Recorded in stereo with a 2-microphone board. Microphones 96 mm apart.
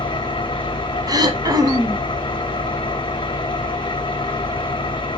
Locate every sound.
0.0 s an engine running: 55° left (ahead or behind), 1.5 m
1.1 s throat clearing: 40° right (ahead or behind), 1.1 m